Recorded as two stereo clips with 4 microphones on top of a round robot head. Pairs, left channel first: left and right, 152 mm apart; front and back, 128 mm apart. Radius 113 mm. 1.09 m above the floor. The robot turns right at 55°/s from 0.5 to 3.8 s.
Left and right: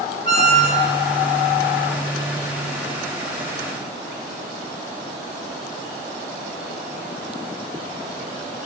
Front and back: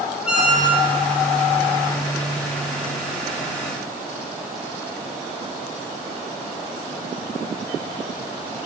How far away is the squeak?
About 0.7 m.